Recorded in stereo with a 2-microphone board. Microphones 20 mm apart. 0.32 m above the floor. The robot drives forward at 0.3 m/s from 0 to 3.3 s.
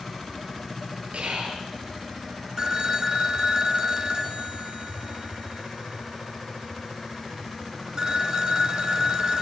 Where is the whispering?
75° right (ahead or behind), 7.5 m.